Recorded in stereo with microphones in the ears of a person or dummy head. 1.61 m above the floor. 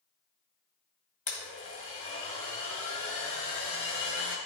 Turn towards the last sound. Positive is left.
turn(degrees=35)  # may be behind; listen again after turning